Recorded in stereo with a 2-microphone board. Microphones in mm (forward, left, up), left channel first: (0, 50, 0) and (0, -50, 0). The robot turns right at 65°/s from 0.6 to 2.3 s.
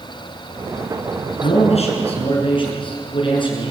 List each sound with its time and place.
1.4 s a man speaking: 70° left, 7.5 m; by 3.7 s 125° left, 7.5 m